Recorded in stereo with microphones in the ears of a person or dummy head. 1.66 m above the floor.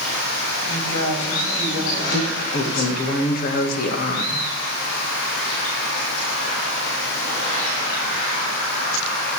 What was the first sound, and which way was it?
A woman speaking, 80° left.